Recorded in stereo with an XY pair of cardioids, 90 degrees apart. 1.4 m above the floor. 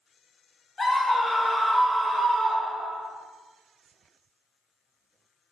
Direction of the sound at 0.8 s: 35° left.